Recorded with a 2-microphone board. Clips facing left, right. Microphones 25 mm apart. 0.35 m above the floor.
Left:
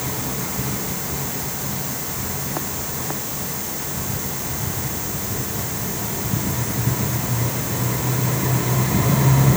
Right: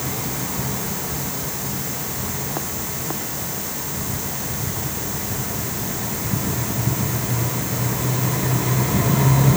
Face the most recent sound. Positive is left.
No sound to turn to.